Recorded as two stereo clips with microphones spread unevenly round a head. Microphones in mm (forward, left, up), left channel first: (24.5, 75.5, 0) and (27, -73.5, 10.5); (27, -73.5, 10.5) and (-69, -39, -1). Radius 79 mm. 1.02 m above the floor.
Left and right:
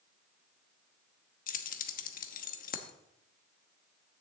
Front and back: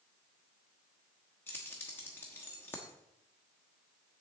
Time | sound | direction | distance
1.5 | keys jangling | 60° left | 0.9 m